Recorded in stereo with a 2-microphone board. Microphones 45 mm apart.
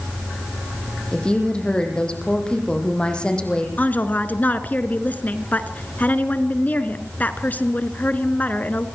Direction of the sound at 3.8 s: 35° left (ahead or behind).